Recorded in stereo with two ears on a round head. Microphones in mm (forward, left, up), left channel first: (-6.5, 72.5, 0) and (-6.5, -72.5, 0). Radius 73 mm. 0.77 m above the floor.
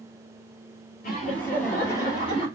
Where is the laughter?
55° left (ahead or behind), 1.8 m; by 2.5 s 40° left (ahead or behind), 1.7 m.